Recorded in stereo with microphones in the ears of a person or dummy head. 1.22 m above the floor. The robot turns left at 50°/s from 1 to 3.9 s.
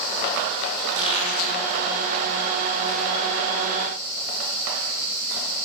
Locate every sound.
0.9 s a squeak: 30° left (ahead or behind), 8.5 m; by 1.6 s 60° left (ahead or behind), 8.5 m